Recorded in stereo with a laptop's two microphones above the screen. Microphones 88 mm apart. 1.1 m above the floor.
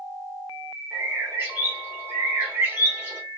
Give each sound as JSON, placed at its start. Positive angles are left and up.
{"t": 0.9, "sound": "a bird", "side_deg": -20, "distance_m": 1.3}